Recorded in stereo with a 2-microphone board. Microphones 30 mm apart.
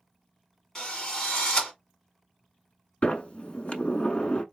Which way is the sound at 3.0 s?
45° left (ahead or behind).